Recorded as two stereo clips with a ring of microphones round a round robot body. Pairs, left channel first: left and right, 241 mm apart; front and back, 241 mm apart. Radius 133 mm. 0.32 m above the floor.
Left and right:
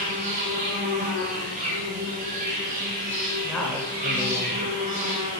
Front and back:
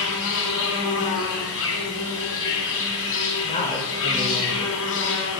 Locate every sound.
0.0 s an insect: 30° right, 1.5 m
3.4 s a man speaking: 10° left, 1.2 m